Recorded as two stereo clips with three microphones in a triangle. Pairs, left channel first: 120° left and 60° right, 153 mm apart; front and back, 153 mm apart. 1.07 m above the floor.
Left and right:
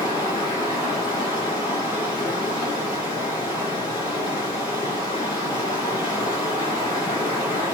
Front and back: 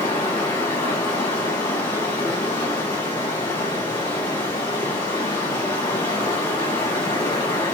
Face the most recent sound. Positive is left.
turn(degrees=70)